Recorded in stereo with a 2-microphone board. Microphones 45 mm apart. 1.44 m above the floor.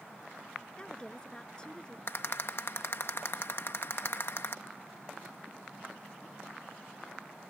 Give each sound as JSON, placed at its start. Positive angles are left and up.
{"t": 0.8, "sound": "a woman speaking", "side_deg": 20}
{"t": 2.1, "sound": "a rattle", "side_deg": 60}